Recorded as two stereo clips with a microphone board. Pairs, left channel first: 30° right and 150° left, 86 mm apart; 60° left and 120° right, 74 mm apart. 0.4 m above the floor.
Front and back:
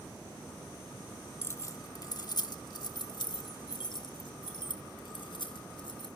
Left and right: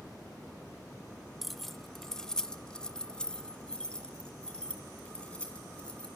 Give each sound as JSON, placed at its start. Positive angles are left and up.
{"t": 1.4, "sound": "keys jangling", "azimuth_deg": -35, "distance_m": 0.6}